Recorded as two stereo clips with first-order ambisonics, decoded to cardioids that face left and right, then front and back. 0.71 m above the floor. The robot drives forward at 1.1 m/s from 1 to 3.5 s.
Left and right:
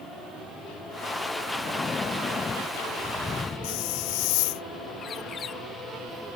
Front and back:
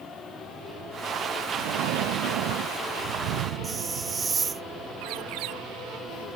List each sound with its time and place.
1.6 s breathing: 160° left; by 4.4 s 165° left
3.6 s a hiss: 105° left
5.0 s a bird: 155° left